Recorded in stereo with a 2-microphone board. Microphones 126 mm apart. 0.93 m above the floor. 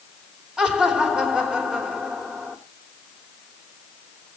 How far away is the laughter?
About 3 m.